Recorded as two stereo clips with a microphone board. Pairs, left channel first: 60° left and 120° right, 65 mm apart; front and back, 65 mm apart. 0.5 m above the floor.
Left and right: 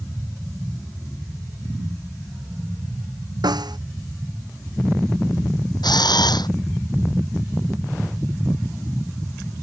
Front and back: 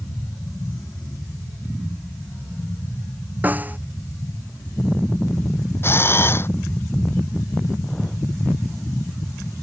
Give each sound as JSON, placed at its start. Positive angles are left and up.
{"t": 3.4, "sound": "a snare drum", "azimuth_deg": -115}
{"t": 5.8, "sound": "a camera shutter", "azimuth_deg": 55}